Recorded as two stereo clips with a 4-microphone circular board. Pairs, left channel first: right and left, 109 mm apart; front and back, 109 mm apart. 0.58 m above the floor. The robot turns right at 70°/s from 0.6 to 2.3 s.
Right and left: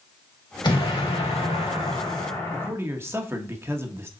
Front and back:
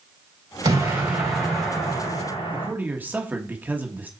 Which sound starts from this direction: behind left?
A man speaking, at 2.5 s.